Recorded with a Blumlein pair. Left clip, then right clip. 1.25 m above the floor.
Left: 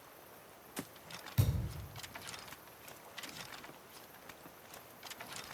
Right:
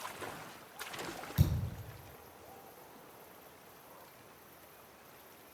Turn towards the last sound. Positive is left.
turn(degrees=-5)